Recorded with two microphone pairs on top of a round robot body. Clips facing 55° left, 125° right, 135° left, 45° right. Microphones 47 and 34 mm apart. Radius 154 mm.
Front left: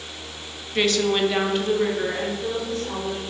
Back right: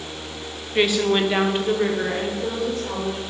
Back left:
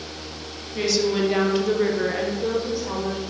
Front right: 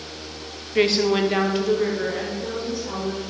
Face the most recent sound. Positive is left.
turn(degrees=160)